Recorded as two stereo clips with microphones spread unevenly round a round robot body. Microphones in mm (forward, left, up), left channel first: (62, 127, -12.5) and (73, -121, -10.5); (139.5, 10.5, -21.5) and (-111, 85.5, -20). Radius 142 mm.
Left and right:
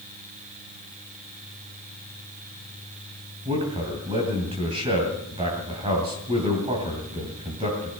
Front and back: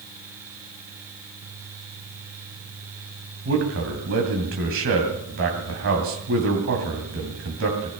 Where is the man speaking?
155° right, 2.5 m.